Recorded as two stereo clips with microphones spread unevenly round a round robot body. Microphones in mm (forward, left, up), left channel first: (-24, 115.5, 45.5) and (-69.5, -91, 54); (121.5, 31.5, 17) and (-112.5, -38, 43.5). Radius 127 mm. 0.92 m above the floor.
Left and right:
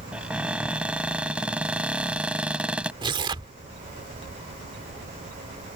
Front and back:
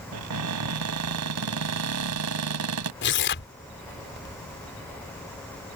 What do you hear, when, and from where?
0.1 s a cupboard door: 175° left
3.0 s tearing paper: 30° right